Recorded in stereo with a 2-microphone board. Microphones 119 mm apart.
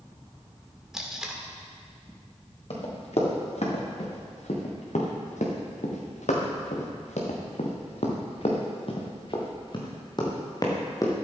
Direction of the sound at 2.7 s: 60° left (ahead or behind).